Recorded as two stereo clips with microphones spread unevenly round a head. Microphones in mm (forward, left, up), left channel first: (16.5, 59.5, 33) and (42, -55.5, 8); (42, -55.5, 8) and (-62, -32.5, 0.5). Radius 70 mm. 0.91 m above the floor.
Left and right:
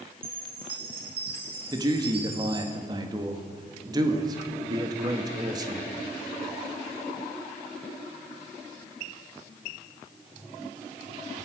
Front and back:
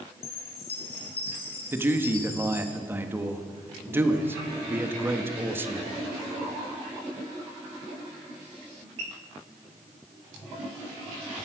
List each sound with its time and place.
0.2 s a chime: 40° right, 3.5 m
1.7 s a man speaking: 125° right, 1.3 m